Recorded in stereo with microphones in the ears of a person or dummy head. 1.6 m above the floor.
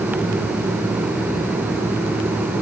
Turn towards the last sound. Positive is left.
No sound to turn to.